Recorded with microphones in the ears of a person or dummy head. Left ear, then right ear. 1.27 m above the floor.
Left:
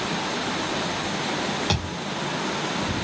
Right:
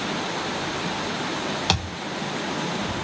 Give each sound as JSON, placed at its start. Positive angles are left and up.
{"t": 1.7, "sound": "a thud", "side_deg": -25, "distance_m": 1.4}